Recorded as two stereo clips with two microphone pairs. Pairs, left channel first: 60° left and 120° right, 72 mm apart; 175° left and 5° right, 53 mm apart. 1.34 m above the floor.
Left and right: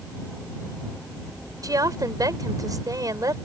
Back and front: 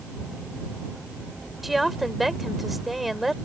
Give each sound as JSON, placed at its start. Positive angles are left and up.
{"t": 1.6, "sound": "a woman speaking", "azimuth_deg": -90}